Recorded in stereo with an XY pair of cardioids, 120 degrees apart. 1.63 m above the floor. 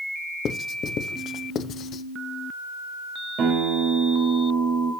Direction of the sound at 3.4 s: 60° right.